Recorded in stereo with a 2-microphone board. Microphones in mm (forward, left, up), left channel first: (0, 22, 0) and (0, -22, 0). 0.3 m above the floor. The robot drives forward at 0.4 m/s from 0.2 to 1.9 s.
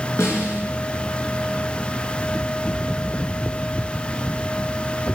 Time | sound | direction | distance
0.2 | a snare drum | 75° left (ahead or behind) | 5.5 m